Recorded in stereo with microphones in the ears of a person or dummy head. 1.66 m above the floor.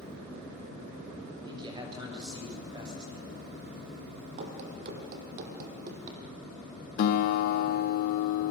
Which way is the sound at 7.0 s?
50° left (ahead or behind).